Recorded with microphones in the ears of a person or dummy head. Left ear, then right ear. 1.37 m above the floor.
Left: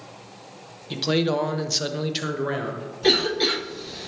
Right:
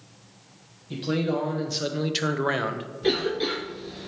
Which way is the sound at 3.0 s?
25° left (ahead or behind).